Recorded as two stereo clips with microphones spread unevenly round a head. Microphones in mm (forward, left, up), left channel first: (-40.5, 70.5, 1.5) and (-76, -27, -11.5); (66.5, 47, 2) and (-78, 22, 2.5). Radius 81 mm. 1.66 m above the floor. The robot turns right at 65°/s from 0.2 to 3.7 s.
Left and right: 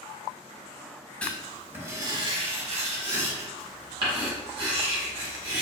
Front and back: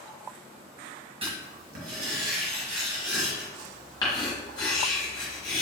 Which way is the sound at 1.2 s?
145° left.